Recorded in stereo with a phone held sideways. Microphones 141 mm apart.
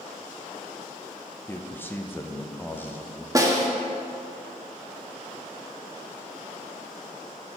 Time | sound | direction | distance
1.5 | a man speaking | 15° left (ahead or behind) | 0.6 m
3.4 | a snare drum | 25° right (ahead or behind) | 0.7 m